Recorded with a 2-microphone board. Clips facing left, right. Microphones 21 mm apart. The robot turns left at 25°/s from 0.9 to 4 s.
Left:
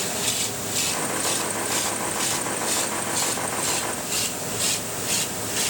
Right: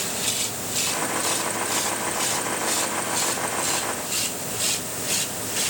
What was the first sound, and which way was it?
Only background noise.